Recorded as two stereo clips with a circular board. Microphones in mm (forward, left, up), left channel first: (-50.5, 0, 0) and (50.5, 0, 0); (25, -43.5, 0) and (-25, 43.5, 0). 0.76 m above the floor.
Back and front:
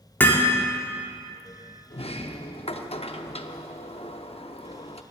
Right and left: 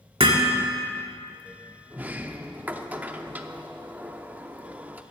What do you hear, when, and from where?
0.2 s hammering: 110° left, 1.8 m
1.9 s a sliding door: 165° right, 0.7 m